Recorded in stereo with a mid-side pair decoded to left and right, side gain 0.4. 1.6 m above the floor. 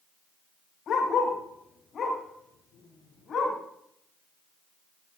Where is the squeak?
No squeak in this recording.